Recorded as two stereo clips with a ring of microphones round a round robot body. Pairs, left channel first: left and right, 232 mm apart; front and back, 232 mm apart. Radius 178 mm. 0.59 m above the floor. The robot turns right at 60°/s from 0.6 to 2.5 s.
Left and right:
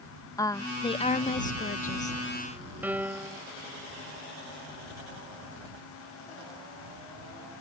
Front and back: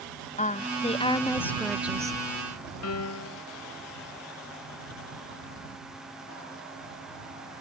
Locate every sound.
0.4 s a woman speaking: 25° left; by 2.2 s 120° left
2.8 s a piano: 10° right